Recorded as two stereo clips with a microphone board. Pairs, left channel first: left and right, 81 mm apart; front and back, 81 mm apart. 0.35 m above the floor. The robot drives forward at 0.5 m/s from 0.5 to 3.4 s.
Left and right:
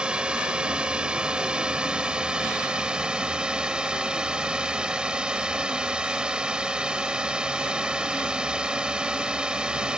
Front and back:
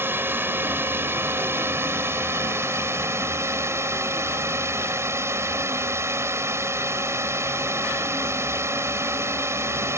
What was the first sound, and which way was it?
A drone, 155° right.